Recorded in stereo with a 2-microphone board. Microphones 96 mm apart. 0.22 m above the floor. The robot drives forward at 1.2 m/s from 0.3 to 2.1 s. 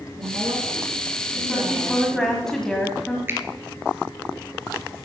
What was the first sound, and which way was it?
A woman speaking, 50° right (ahead or behind).